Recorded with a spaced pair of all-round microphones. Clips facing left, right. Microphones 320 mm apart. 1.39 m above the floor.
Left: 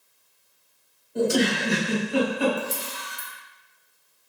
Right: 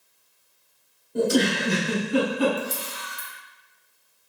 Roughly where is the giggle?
Right.